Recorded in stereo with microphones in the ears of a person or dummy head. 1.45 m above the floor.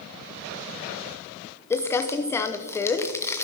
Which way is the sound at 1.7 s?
10° left (ahead or behind).